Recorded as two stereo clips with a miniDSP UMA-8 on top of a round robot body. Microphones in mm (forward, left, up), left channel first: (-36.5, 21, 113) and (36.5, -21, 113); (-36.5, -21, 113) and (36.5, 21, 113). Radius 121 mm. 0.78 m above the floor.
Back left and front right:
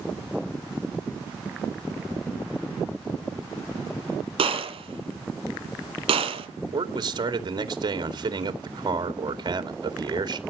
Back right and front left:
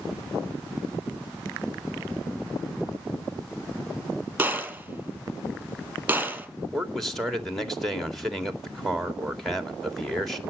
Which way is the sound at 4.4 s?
40° right.